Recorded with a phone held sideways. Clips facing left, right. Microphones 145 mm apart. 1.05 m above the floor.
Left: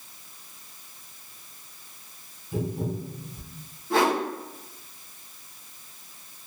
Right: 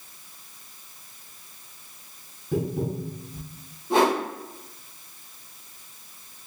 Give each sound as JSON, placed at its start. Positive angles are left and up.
{"t": 2.5, "sound": "tapping", "side_deg": -65, "distance_m": 1.0}
{"t": 3.9, "sound": "a whoosh", "side_deg": -20, "distance_m": 0.9}